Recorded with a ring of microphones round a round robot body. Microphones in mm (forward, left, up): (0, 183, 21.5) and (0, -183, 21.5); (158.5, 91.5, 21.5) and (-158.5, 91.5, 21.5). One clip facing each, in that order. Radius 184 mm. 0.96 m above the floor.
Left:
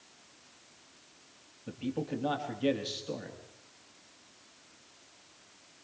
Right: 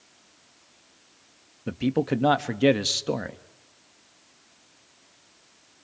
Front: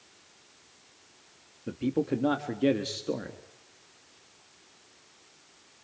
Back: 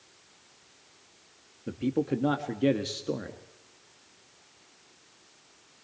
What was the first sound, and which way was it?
A man speaking, 90° right.